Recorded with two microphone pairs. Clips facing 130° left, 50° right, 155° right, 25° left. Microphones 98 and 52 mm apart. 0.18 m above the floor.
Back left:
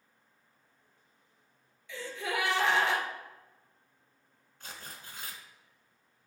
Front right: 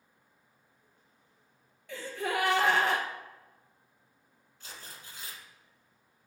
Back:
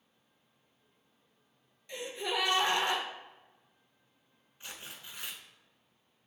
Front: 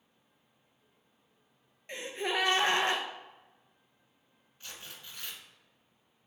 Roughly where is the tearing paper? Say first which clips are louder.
Back left 2 dB, back 1 dB; behind left.